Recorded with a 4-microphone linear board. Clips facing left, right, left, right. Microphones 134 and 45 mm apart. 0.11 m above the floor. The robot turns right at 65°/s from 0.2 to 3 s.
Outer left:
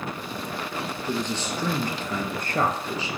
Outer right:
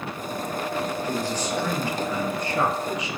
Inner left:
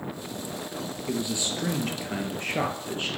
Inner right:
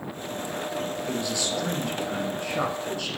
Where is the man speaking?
15° left, 1.8 m; by 3.1 s 140° left, 1.8 m.